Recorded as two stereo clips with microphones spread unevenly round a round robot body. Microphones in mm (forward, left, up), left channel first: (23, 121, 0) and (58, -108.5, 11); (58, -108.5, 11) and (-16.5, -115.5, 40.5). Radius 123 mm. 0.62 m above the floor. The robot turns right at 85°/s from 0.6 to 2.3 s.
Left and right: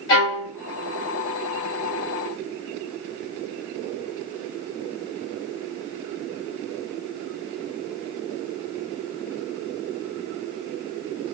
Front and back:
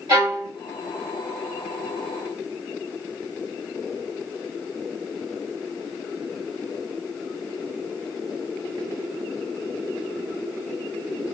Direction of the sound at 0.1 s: 120° left.